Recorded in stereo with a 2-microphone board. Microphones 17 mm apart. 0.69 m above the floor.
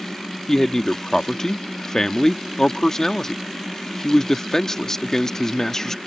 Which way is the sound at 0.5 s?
25° left (ahead or behind).